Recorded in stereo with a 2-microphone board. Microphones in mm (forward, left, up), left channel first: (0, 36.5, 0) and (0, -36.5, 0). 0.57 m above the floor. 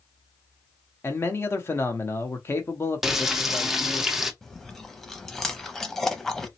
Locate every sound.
1.0 s a man speaking: 35° left (ahead or behind), 0.7 m
3.0 s frying: 5° right (ahead or behind), 0.5 m
4.4 s chewing: 5° left (ahead or behind), 0.5 m